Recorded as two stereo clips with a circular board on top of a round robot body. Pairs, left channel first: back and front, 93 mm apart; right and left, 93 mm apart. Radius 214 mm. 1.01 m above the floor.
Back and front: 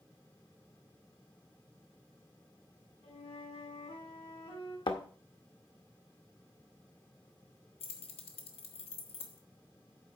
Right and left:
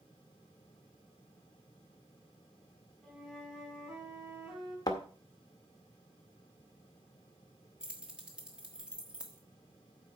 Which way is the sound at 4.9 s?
140° right.